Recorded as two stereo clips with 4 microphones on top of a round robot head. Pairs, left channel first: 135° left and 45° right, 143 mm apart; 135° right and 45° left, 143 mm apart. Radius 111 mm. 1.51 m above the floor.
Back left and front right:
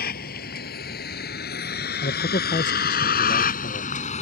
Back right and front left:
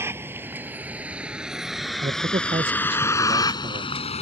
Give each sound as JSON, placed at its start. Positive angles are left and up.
{"t": 0.0, "sound": "a vehicle", "azimuth_deg": 120}
{"t": 2.0, "sound": "a man speaking", "azimuth_deg": 100}